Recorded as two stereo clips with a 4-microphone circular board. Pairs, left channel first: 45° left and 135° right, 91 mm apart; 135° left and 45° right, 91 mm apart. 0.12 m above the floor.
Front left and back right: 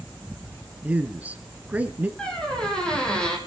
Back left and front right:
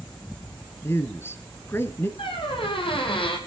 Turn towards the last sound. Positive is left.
turn(degrees=125)